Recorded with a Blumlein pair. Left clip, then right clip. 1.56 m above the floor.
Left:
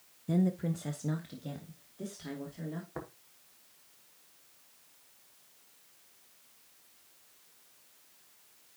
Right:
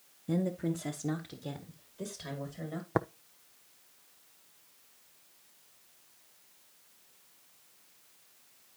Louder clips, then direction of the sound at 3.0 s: Right 15 dB; 45° right.